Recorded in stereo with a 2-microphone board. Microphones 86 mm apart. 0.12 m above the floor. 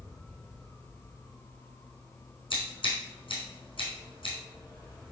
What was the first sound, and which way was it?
Scissors, 75° left (ahead or behind).